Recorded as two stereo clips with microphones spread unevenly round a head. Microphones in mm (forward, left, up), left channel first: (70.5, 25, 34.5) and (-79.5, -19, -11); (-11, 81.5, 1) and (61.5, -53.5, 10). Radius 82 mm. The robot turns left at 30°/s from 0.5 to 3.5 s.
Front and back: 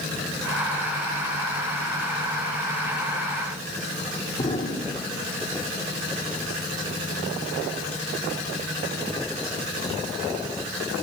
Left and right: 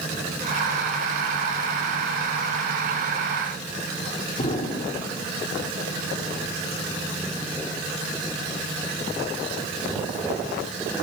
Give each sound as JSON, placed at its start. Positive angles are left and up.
{"t": 4.4, "sound": "an explosion", "azimuth_deg": 70, "distance_m": 4.0}